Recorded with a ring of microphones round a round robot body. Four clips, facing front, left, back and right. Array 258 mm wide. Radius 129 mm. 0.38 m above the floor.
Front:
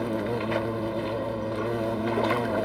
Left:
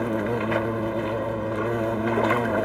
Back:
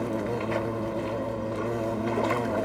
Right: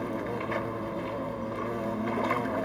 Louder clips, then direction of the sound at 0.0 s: Left 7 dB, front 1 dB; 80° left.